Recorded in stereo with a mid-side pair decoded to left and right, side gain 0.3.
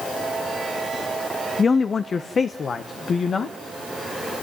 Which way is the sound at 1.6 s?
45° left.